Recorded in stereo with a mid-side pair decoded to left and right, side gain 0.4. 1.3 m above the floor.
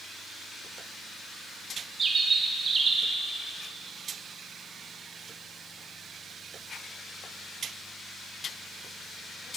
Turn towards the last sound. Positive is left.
turn(degrees=-50)